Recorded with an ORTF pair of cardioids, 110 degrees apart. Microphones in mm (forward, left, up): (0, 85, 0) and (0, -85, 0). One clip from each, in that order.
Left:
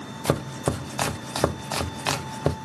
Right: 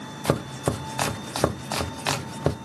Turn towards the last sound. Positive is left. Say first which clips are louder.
# even
turn(degrees=0)